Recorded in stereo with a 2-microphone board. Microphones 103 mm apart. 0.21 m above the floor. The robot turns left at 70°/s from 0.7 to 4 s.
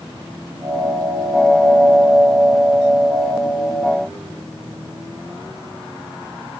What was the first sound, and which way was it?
Only background noise.